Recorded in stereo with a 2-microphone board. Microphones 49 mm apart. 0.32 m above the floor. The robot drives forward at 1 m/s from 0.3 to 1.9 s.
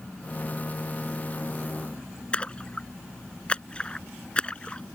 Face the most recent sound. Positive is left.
turn(degrees=25)  # may be behind; listen again after turning